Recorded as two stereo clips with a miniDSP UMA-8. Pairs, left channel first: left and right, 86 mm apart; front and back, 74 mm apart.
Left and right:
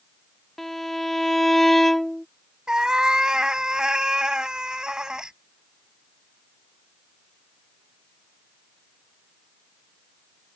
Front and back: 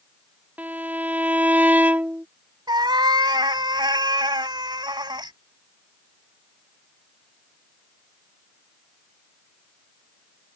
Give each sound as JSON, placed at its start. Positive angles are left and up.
{"t": 0.6, "sound": "a violin", "azimuth_deg": 170}
{"t": 2.7, "sound": "a cat meowing", "azimuth_deg": -170}